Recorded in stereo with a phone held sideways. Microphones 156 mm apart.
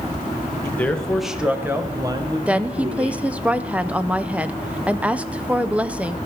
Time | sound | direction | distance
0.6 | a man speaking | 15° left (ahead or behind) | 1.1 m
2.5 | a woman speaking | 5° right (ahead or behind) | 0.5 m